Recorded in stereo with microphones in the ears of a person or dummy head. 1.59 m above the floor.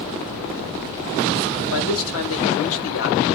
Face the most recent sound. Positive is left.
turn(degrees=80)